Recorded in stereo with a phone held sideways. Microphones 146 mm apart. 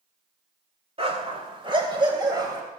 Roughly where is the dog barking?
Right.